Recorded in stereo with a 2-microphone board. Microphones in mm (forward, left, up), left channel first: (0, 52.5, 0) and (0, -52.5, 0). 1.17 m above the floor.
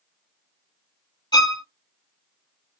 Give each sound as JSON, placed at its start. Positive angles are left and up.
{"t": 1.3, "sound": "a violin", "side_deg": 40, "distance_m": 1.3}